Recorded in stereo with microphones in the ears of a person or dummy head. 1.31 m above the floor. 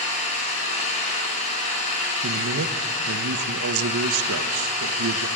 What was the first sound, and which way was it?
An engine running, 35° left (ahead or behind).